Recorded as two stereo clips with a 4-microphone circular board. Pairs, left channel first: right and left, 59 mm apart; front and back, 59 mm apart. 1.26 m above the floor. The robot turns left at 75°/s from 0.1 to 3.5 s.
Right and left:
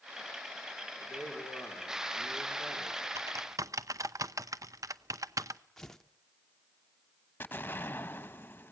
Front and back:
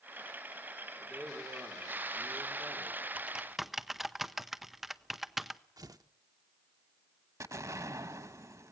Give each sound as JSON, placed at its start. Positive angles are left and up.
{"t": 1.0, "sound": "a man speaking", "azimuth_deg": -70, "distance_m": 4.0}
{"t": 3.1, "sound": "typing on a keyboard", "azimuth_deg": 120, "distance_m": 0.7}
{"t": 5.8, "sound": "tearing paper", "azimuth_deg": -170, "distance_m": 0.8}
{"t": 7.4, "sound": "an explosion", "azimuth_deg": -150, "distance_m": 1.0}